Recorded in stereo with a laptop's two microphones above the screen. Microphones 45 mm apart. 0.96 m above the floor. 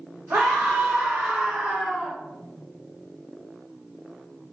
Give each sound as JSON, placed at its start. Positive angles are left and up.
{"t": 0.3, "sound": "a scream", "side_deg": -50, "distance_m": 0.7}